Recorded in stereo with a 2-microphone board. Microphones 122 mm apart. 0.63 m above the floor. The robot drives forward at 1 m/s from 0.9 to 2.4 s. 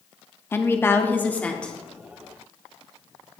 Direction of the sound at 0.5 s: 20° left (ahead or behind).